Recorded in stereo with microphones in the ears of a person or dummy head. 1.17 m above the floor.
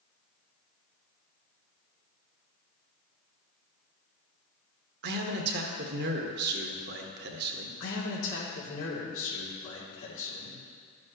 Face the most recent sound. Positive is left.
turn(degrees=85)